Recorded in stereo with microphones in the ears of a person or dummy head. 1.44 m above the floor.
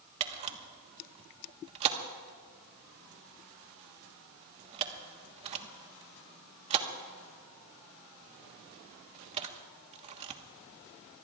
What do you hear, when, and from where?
0.2 s a camera shutter: 40° right (ahead or behind), 1.2 m